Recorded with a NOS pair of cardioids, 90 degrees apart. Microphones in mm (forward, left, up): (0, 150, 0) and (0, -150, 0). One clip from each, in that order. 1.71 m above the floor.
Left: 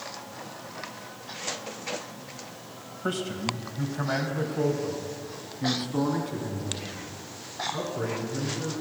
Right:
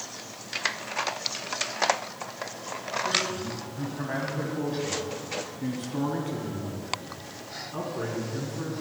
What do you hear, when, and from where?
3.0 s a man speaking: 45° left, 2 m; by 8.7 s 5° right, 5 m